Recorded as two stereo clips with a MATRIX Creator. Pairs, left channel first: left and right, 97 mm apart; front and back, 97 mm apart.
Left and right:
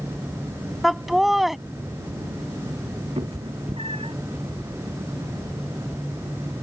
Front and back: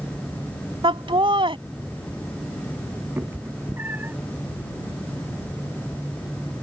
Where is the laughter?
Straight behind.